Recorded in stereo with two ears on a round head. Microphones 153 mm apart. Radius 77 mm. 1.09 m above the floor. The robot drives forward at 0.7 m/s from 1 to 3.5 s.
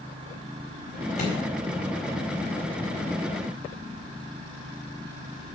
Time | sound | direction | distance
1.2 | a microwave | 50° left (ahead or behind) | 4.5 m